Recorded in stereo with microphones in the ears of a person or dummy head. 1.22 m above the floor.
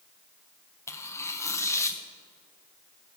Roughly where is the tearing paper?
Centre.